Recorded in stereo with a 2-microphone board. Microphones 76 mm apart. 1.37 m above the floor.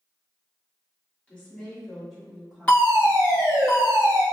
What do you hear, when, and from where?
1.3 s a woman speaking: 20° left (ahead or behind), 1.6 m; by 3.7 s 30° right (ahead or behind), 1.6 m
2.7 s a fire alarm: 20° left (ahead or behind), 2.0 m